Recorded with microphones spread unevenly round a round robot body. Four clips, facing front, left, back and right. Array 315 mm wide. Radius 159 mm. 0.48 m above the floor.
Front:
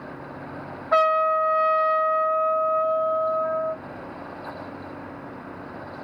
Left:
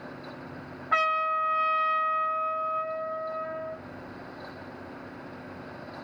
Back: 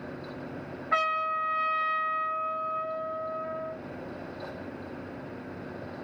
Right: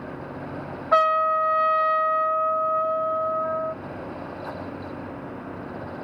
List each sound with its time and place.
0.9 s a trumpet: 85° right, 2 m